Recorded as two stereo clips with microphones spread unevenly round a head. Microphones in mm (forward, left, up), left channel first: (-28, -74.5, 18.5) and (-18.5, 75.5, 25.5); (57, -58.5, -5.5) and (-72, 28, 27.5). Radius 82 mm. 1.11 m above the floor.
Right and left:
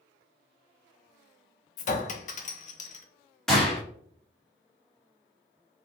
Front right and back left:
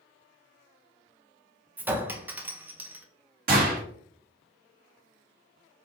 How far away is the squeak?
I don't hear a squeak.